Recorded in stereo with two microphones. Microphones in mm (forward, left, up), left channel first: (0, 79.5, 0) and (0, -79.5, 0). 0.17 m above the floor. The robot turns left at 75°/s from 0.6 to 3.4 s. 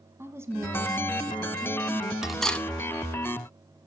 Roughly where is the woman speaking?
Centre.